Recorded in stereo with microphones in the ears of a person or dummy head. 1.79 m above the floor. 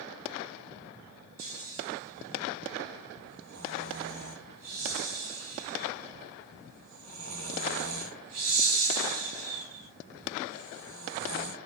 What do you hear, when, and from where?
1.4 s snoring: 80° right, 1.7 m